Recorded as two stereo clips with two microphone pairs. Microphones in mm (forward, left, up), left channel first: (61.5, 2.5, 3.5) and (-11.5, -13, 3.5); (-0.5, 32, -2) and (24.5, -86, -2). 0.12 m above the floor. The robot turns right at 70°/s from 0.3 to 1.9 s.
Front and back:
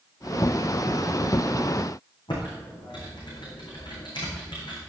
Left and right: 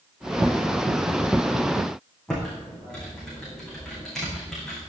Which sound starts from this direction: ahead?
Typing on a keyboard, at 2.3 s.